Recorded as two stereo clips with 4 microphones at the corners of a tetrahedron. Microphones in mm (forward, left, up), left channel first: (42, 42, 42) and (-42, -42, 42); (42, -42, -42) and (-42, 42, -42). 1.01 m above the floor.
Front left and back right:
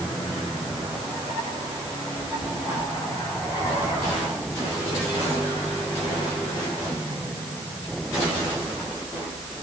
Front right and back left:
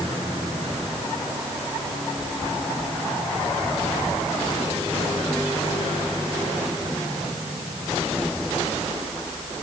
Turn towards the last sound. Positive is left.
No sound to turn to.